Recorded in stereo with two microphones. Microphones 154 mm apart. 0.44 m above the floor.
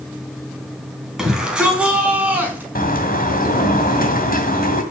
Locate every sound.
1.2 s a shout: 5° right (ahead or behind), 3.5 m; by 2.6 s 10° right (ahead or behind), 4.5 m
2.8 s a bird: 70° left (ahead or behind), 2 m